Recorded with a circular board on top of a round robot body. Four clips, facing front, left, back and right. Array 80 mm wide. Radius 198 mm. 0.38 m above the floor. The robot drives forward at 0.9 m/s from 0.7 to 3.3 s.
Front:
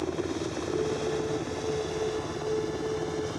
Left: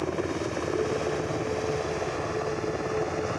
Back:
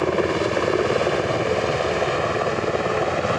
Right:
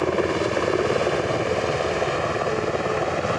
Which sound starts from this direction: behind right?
A helicopter, at 0.0 s.